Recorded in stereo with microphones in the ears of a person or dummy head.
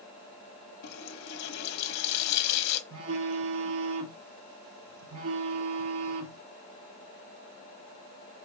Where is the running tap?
65° left (ahead or behind), 1.1 m.